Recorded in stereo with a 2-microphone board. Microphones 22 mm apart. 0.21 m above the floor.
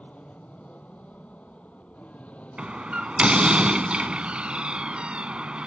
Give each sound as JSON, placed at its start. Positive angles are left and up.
{"t": 0.0, "sound": "an aircraft", "side_deg": 75}
{"t": 2.6, "sound": "a door slam", "side_deg": -50}